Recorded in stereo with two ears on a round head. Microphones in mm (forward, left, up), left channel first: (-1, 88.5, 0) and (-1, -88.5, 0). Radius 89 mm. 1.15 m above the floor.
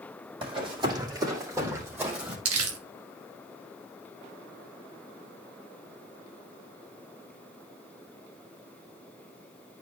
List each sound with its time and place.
0.4 s running footsteps: 25° right (ahead or behind), 3 m; by 2.4 s 10° right (ahead or behind), 3 m
2.5 s crumpling: 90° right, 1.7 m